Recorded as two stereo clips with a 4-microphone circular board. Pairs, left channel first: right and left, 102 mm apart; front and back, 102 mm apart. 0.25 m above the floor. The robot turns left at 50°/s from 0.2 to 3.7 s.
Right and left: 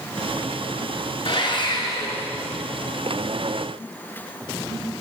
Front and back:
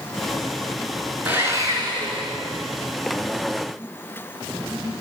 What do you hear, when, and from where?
1.2 s sawing: 110° right, 3 m; by 2.3 s 160° right, 3 m